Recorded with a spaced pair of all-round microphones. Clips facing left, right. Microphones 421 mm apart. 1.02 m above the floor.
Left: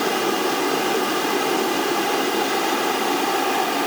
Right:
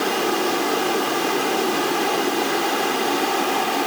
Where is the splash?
I don't hear a splash.